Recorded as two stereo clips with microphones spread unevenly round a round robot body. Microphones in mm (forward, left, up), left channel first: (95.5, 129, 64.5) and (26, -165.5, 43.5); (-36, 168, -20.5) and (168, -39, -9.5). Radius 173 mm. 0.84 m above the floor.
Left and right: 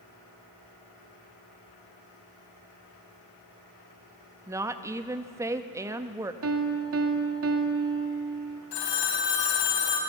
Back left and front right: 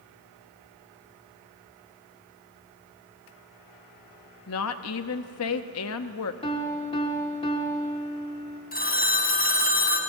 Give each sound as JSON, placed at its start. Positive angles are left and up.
{"t": 4.5, "sound": "a woman speaking", "azimuth_deg": 180, "distance_m": 0.7}
{"t": 6.4, "sound": "a piano", "azimuth_deg": -150, "distance_m": 1.5}
{"t": 8.7, "sound": "a phone ringing", "azimuth_deg": 75, "distance_m": 3.5}